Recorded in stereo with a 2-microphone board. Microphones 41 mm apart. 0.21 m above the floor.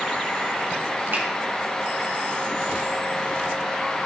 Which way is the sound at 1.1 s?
60° right (ahead or behind).